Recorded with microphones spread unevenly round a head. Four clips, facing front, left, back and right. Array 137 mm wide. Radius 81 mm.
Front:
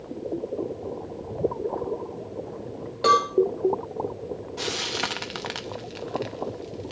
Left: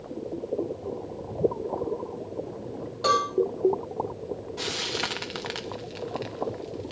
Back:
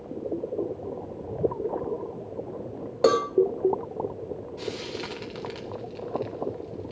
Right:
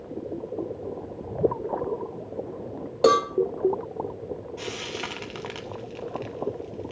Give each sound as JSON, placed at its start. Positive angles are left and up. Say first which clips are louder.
{"t": 3.0, "sound": "a cowbell", "louder": "right 5 dB, front 1 dB", "azimuth_deg": -135, "distance_m": 1.1}
{"t": 4.6, "sound": "frying", "louder": "left 2 dB, front 5 dB", "azimuth_deg": 35, "distance_m": 0.9}